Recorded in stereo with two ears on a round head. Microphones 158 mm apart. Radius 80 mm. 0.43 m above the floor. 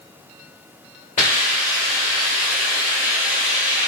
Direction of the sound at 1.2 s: 45° left (ahead or behind).